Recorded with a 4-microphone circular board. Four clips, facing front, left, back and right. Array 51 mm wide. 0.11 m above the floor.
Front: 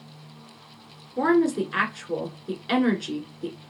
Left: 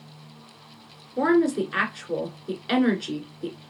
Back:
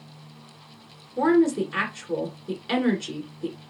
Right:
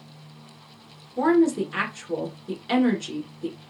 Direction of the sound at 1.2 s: 65° left.